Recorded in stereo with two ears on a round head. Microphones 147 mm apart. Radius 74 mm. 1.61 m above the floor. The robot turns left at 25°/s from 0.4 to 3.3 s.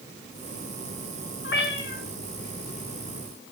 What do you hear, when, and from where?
1.4 s a cat meowing: 70° left (ahead or behind), 7 m; by 2.0 s 60° left (ahead or behind), 7 m